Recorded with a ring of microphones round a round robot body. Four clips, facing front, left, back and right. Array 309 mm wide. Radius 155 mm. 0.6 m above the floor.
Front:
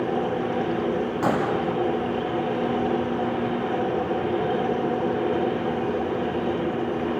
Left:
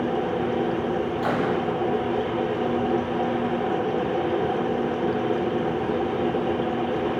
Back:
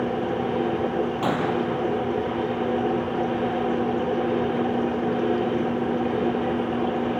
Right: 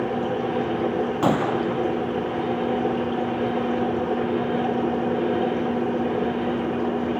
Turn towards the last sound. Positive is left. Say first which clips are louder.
# right 3 dB, front 3 dB
turn(degrees=-80)